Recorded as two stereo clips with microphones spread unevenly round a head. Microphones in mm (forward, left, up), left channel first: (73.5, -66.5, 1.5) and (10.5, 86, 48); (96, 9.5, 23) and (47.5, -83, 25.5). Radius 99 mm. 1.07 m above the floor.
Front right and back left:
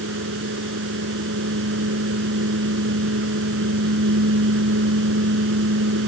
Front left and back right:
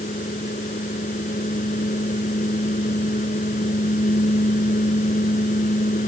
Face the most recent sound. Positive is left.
turn(degrees=105)